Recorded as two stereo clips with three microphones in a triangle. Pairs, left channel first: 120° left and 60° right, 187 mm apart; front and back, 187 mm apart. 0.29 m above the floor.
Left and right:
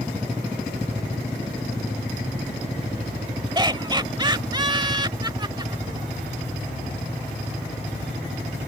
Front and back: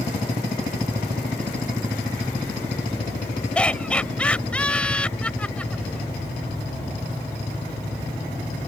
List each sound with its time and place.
3.5 s laughter: 75° right